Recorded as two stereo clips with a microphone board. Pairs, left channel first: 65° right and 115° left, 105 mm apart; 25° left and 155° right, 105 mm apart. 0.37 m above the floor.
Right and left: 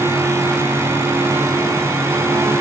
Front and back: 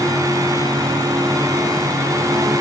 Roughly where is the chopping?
No chopping in this recording.